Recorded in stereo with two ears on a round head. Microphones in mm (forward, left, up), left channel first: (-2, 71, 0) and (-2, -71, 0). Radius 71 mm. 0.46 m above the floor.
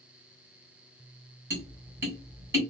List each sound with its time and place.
1.5 s tapping: 20° right (ahead or behind), 1.4 m